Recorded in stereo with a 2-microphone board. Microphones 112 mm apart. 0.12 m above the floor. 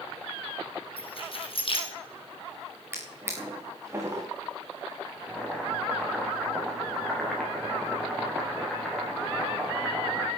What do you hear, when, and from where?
1.0 s keys jangling: 55° left (ahead or behind), 4 m
2.9 s a drawer: 25° right (ahead or behind), 3.5 m
5.1 s boiling: centre (ahead or behind), 5 m